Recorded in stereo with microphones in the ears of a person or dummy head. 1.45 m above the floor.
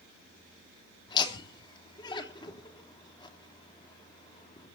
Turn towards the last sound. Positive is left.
turn(degrees=30)  # may be behind; listen again after turning